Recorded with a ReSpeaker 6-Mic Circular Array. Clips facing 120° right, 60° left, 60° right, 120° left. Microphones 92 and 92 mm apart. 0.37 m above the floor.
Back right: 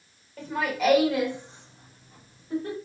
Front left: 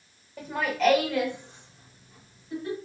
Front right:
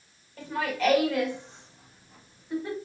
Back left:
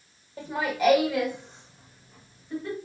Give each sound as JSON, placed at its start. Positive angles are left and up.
{"t": 0.4, "sound": "laughter", "azimuth_deg": 130, "distance_m": 0.9}